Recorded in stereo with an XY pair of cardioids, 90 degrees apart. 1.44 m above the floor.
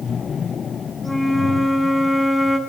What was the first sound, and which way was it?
A flute, 10° left.